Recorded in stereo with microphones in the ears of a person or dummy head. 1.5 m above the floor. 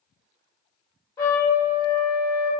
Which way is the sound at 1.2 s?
15° left (ahead or behind).